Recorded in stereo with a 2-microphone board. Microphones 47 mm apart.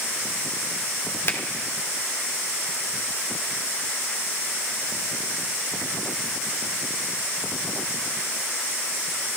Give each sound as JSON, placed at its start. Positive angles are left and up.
{"t": 1.3, "sound": "a finger snap", "side_deg": 50, "distance_m": 1.7}